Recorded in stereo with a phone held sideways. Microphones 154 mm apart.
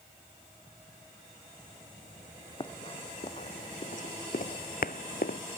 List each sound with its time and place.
2.6 s running footsteps: 30° left (ahead or behind); by 5.4 s 70° left (ahead or behind)